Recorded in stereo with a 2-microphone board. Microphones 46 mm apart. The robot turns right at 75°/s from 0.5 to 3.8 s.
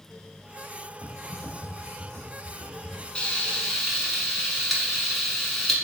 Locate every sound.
1.0 s typing on a keyboard: 150° right, 1.0 m; by 3.0 s straight ahead, 1.0 m
3.1 s frying: 20° left (ahead or behind), 1.1 m; by 5.8 s centre (ahead or behind), 1.1 m